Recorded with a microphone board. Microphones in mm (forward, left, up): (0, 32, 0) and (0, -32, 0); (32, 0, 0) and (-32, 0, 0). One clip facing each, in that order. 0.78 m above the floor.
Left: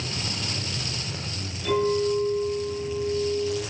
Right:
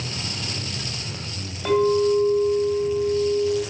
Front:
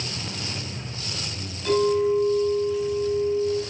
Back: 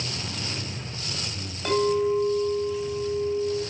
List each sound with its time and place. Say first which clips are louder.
1.6 s a clink: right 5 dB, front 2 dB; 140° right, 2.5 m